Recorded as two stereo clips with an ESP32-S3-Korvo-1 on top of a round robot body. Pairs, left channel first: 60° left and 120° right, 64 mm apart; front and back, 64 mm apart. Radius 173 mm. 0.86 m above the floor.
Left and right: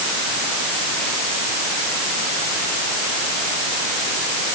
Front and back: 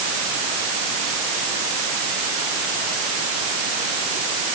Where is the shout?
I don't hear a shout.